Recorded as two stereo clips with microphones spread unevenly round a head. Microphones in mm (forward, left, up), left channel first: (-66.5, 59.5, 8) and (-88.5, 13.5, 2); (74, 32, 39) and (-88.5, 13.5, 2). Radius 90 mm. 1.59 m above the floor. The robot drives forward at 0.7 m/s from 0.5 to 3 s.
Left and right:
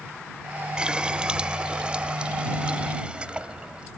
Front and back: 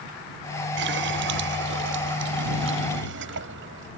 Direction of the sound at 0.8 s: 170° left.